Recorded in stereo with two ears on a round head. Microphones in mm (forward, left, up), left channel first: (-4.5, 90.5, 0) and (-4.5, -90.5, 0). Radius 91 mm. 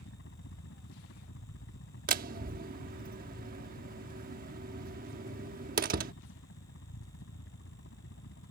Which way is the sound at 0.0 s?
60° left (ahead or behind).